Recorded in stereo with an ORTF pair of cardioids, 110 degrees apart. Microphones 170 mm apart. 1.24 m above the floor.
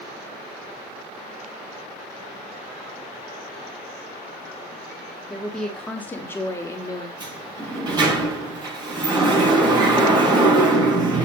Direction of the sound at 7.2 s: 25° right.